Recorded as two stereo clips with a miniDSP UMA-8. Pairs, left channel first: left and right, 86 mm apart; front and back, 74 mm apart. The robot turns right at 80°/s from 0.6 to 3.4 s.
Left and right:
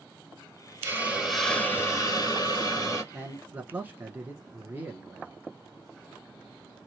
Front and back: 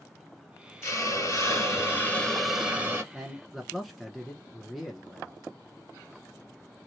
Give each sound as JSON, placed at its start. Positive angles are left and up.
{"t": 0.8, "sound": "a hiss", "azimuth_deg": -40, "distance_m": 2.0}
{"t": 3.1, "sound": "a man speaking", "azimuth_deg": -115, "distance_m": 1.1}